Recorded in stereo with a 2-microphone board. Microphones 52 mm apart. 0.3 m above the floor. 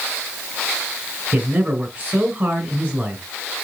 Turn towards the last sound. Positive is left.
turn(degrees=-30)  # may be behind; listen again after turning